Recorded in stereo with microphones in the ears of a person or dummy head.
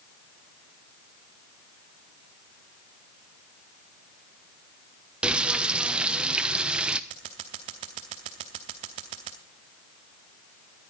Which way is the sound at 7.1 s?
25° right (ahead or behind).